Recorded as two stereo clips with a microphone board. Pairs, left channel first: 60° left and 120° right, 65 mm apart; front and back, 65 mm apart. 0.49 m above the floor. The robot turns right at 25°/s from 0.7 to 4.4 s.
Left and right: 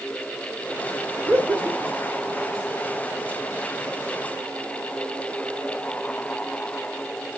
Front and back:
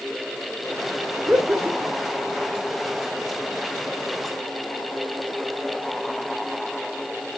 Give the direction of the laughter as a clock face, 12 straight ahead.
5 o'clock.